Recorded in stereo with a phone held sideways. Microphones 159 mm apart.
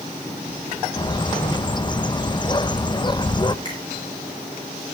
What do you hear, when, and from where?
1.0 s a bird: 30° left (ahead or behind), 0.8 m
3.6 s a finger snap: 30° left (ahead or behind), 9.5 m